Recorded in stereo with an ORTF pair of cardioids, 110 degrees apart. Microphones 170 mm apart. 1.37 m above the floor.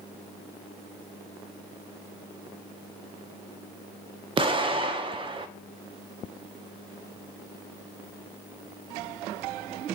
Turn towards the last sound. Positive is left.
turn(degrees=-30)